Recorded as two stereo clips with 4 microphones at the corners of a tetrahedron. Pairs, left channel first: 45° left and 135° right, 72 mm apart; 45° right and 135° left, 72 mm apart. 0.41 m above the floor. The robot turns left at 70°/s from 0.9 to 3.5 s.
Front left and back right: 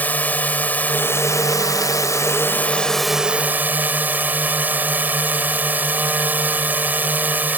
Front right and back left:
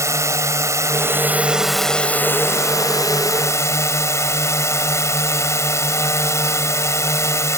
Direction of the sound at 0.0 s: 105° left.